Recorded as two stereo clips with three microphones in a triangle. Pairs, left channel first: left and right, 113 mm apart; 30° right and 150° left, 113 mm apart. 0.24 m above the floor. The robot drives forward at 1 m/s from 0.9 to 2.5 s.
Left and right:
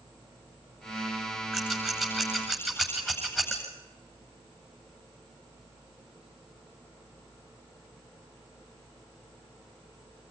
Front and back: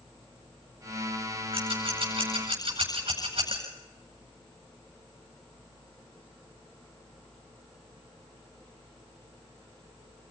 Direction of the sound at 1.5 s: 175° right.